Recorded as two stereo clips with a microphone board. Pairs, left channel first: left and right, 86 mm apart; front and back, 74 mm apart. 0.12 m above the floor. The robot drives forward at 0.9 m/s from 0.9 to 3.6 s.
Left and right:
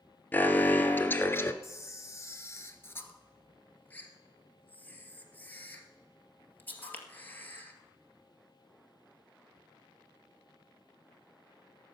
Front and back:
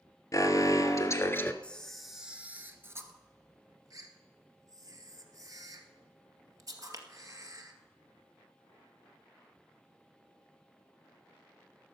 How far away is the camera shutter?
About 1.3 m.